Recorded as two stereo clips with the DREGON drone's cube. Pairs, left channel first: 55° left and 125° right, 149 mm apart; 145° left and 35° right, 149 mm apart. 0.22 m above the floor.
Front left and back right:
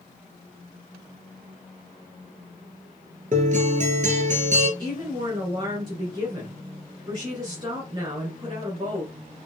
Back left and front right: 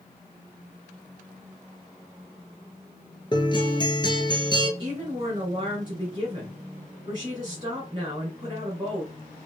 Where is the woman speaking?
80° right, 2.5 m.